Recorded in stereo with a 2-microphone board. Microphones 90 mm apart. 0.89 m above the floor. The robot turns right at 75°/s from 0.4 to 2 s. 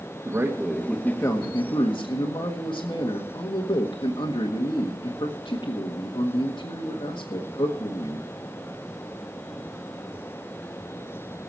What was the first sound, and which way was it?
A man speaking, 25° right.